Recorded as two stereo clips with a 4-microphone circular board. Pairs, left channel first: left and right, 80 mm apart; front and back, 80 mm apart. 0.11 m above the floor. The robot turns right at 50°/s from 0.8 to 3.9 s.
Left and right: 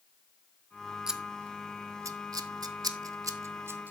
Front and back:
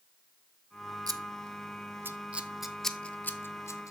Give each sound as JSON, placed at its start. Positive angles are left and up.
{"t": 1.1, "sound": "scissors", "azimuth_deg": -170, "distance_m": 0.7}